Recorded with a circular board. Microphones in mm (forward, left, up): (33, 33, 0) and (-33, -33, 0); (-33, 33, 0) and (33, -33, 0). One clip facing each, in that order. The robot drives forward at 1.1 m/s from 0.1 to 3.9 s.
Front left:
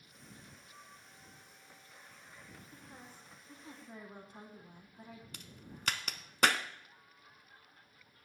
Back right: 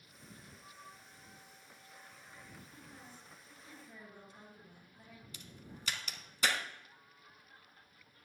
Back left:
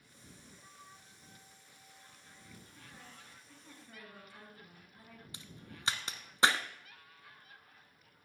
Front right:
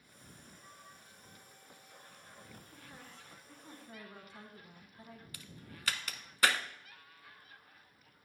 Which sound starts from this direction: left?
A crack, at 5.3 s.